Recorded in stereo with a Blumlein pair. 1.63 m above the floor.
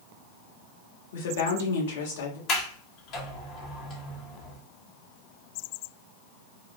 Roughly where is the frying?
I don't hear frying.